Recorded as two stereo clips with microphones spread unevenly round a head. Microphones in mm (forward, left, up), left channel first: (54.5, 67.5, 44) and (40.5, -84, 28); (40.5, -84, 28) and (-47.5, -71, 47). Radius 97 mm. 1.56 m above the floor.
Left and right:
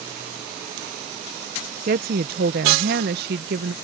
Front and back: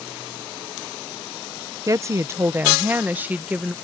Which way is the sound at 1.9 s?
135° right.